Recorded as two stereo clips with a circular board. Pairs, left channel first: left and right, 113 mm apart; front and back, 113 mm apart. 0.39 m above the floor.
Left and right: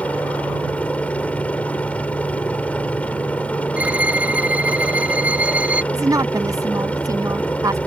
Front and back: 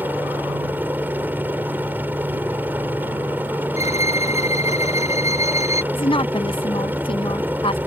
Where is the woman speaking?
35° right.